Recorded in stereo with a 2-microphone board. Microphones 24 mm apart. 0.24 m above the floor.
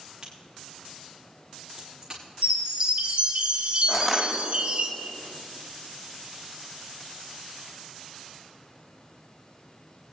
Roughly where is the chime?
Right.